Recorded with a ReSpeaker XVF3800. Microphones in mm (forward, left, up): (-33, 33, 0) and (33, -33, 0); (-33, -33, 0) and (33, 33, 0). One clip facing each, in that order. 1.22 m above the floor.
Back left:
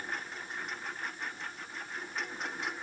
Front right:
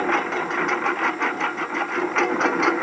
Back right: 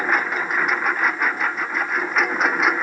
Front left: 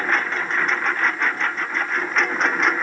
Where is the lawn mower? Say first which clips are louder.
Front right 19 dB, back right 1 dB; 55° right; by 2.8 s 50° right.